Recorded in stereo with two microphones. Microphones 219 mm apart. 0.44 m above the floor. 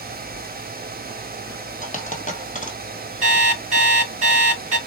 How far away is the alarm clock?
About 2.5 m.